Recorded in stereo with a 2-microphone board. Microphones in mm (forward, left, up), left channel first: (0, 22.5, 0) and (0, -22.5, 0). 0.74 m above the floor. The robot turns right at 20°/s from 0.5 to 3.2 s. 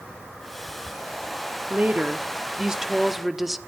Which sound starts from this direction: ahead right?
A woman speaking, at 1.7 s.